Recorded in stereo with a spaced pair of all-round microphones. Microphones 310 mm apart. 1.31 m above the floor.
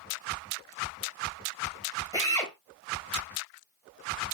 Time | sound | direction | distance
2.1 | a drill | 10° left (ahead or behind) | 5 m